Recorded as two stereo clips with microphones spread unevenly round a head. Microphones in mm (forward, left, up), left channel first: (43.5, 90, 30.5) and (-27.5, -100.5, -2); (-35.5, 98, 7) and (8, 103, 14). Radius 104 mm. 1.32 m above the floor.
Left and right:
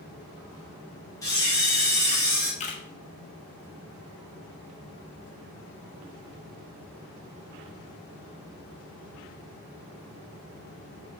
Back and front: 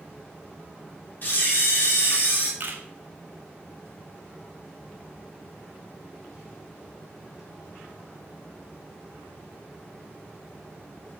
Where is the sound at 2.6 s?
25° left, 1.0 m.